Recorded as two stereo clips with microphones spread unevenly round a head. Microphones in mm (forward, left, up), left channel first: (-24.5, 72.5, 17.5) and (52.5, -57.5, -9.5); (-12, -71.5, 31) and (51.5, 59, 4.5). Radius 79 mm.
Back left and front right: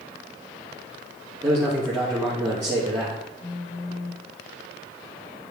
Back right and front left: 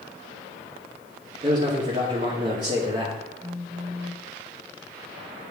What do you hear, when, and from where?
1.4 s a man speaking: 10° left, 2.5 m
3.4 s a phone buzzing: 170° left, 4.5 m